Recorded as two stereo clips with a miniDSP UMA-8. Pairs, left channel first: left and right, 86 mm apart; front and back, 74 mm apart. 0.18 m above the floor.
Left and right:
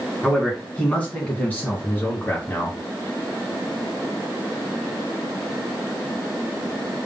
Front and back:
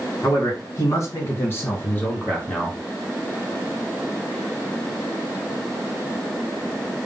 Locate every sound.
0.2 s a man speaking: 15° left, 2 m; by 2.8 s 70° left, 1.5 m